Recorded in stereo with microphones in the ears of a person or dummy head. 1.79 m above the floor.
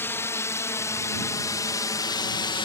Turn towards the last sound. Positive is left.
turn(degrees=20)  # may be behind; listen again after turning